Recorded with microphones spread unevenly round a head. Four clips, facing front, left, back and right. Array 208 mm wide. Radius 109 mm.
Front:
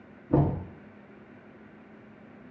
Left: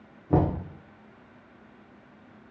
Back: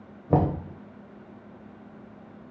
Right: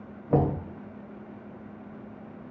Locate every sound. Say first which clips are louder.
0.3 s knocking: even, back 2 dB; 175° left, 1.2 m